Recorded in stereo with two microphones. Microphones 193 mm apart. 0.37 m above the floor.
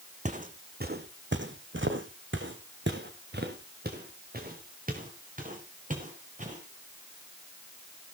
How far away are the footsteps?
About 1.6 m.